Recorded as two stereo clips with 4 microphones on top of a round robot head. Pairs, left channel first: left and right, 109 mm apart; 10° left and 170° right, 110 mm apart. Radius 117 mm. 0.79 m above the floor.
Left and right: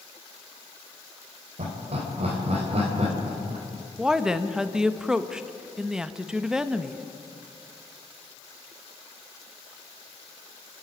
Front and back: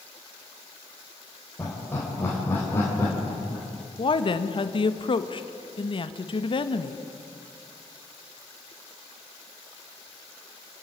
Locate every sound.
1.6 s laughter: 65° right, 3.5 m
4.0 s a woman speaking: 5° right, 1.2 m